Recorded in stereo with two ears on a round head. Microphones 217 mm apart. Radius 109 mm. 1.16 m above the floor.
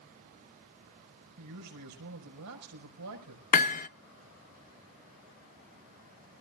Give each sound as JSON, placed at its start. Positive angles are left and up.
{"t": 1.4, "sound": "a man speaking", "side_deg": -80, "distance_m": 5.5}
{"t": 3.5, "sound": "hammering", "side_deg": 35, "distance_m": 0.7}